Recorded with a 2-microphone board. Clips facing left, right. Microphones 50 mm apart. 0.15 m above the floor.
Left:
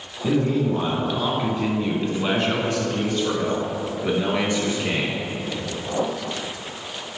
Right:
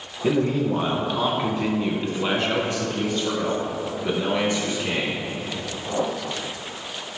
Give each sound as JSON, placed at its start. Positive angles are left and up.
{"t": 0.2, "sound": "a man speaking", "side_deg": -25, "distance_m": 1.3}